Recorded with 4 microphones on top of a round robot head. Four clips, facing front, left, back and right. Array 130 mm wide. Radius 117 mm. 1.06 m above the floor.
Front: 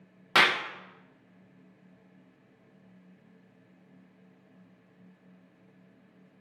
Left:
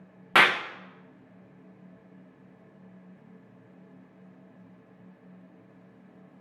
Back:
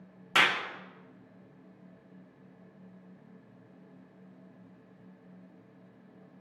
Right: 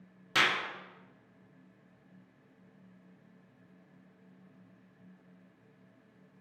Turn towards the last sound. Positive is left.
turn(degrees=70)